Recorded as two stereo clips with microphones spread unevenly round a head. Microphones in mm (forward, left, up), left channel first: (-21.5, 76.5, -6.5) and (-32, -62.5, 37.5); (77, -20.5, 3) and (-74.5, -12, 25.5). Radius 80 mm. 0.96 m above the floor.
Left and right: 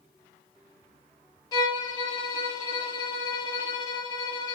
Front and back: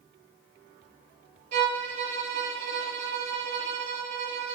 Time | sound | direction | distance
1.5 | a violin | 145° left | 4 m